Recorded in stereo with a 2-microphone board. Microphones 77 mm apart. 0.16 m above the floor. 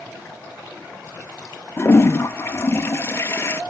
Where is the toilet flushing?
30° left (ahead or behind), 0.7 m.